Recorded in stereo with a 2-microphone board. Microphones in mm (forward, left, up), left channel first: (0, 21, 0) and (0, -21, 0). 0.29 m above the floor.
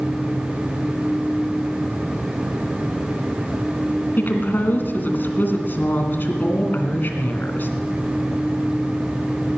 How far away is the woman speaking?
About 2.5 m.